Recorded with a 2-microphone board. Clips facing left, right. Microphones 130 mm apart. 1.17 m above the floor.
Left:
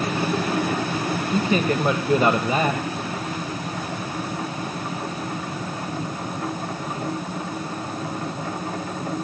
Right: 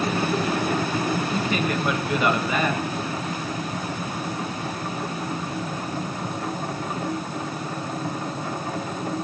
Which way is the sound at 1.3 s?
35° left (ahead or behind).